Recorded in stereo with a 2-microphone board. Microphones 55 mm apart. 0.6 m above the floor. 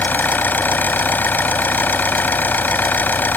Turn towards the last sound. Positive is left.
turn(degrees=35)  # may be behind; listen again after turning